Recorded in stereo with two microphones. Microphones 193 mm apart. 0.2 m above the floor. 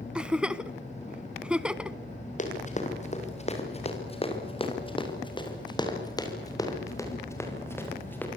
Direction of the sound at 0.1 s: 5° right (ahead or behind).